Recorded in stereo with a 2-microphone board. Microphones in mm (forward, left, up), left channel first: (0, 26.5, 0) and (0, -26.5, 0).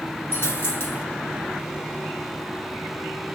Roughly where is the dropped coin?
Left.